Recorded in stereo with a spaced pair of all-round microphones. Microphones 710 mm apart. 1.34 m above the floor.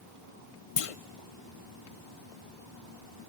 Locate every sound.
0.8 s a clunk: 55° left (ahead or behind), 0.6 m